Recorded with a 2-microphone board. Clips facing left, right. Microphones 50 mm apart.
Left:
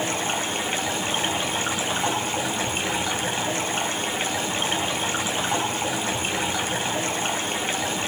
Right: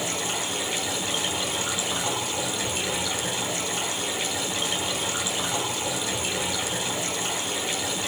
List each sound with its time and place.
0.0 s running water: 40° left (ahead or behind), 2.5 m